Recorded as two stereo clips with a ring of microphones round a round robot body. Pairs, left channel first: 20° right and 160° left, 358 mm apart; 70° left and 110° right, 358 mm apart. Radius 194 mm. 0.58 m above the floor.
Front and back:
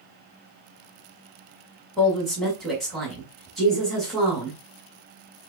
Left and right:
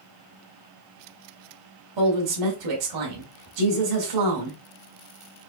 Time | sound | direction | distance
2.0 | a woman speaking | 110° right | 2 m